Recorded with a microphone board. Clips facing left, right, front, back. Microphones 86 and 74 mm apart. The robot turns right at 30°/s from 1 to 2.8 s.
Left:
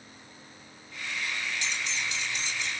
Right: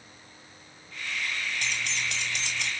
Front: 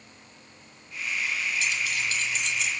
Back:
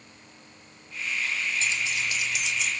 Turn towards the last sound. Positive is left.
turn(degrees=-85)